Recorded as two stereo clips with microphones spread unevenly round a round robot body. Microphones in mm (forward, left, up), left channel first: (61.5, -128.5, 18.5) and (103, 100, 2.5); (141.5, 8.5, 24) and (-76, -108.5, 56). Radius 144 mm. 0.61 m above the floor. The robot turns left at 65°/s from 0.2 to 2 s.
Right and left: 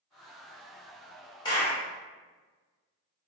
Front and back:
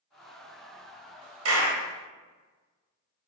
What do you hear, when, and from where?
1.4 s a clap: 175° right, 1.0 m; by 1.8 s 165° left, 1.0 m